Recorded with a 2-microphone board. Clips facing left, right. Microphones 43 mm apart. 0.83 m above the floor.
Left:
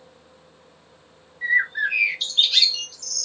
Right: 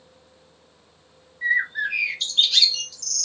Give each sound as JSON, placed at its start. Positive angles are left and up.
{"t": 1.4, "sound": "a bird", "side_deg": 5, "distance_m": 0.6}